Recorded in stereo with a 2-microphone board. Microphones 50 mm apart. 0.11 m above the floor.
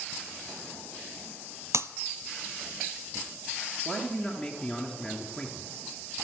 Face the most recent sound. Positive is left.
turn(degrees=5)  # may be behind; listen again after turning